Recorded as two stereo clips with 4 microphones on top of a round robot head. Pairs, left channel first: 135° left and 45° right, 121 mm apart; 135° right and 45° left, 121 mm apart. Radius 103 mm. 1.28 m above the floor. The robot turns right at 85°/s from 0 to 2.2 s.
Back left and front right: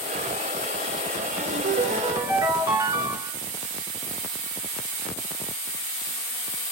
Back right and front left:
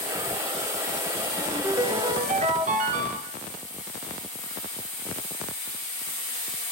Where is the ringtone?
45° right, 2.5 m; by 3.4 s 25° left, 2.5 m.